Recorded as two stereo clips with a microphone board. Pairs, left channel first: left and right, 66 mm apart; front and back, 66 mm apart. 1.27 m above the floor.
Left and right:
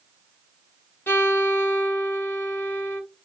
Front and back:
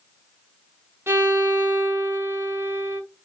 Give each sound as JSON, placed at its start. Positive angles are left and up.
{"t": 1.1, "sound": "a violin", "azimuth_deg": 140, "distance_m": 0.6}